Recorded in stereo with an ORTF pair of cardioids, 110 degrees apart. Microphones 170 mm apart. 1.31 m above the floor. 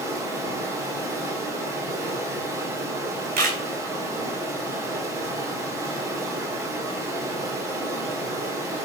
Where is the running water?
15° right, 3 m.